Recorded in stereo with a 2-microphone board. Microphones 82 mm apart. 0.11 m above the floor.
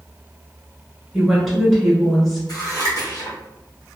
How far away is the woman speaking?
About 1.2 m.